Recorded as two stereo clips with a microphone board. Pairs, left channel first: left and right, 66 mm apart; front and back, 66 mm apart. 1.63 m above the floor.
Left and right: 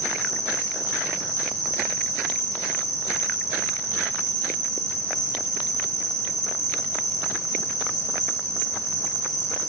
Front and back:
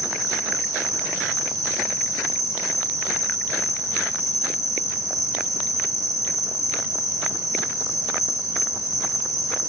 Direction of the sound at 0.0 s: 160° left.